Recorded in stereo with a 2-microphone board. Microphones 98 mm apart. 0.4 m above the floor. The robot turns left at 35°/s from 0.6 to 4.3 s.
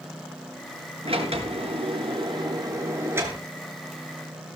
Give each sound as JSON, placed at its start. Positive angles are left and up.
{"t": 1.1, "sound": "a sliding door", "azimuth_deg": -85, "distance_m": 6.5}